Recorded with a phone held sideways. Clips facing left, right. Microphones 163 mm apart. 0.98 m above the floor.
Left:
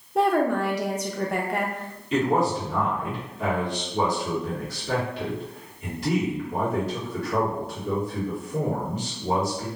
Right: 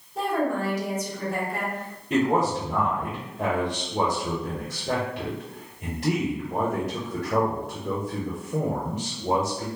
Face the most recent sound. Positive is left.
turn(degrees=-70)  # may be behind; listen again after turning